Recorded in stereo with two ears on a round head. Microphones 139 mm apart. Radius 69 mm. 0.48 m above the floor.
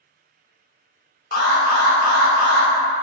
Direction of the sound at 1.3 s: 60° left (ahead or behind).